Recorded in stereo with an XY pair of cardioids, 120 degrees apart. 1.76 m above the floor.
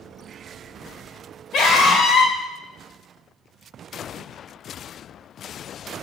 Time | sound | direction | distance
1.5 | a scream | 65° left | 1.2 m